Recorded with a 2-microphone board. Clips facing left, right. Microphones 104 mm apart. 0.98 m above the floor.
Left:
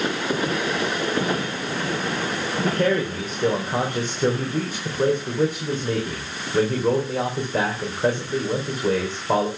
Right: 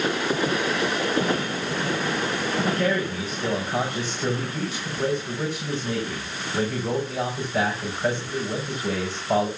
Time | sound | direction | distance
2.6 | a man speaking | 50° left (ahead or behind) | 4 m